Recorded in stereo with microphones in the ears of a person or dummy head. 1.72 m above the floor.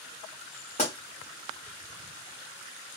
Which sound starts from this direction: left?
A pop, at 0.8 s.